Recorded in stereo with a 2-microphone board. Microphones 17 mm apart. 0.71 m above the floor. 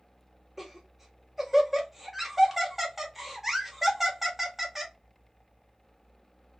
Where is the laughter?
15° right (ahead or behind), 1.2 m.